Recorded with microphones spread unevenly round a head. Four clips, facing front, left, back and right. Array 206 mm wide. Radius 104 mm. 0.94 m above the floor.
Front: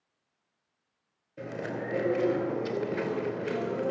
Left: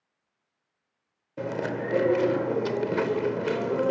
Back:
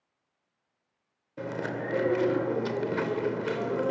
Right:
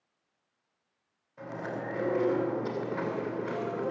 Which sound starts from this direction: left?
Chewing, at 1.4 s.